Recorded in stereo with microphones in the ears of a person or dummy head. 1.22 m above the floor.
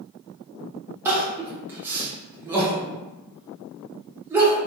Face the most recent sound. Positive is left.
turn(degrees=-20)  # may be behind; listen again after turning